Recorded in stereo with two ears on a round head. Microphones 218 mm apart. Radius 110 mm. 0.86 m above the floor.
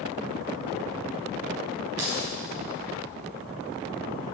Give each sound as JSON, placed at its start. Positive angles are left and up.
{"t": 2.0, "sound": "keys jangling", "side_deg": -75, "distance_m": 4.5}